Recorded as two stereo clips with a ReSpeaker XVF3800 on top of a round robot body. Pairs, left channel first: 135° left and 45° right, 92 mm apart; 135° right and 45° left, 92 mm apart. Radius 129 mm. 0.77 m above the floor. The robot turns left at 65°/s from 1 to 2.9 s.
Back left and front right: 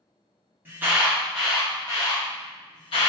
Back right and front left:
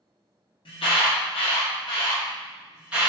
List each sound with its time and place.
0.7 s an alarm: 115° right, 1.5 m; by 3.1 s 120° left, 1.5 m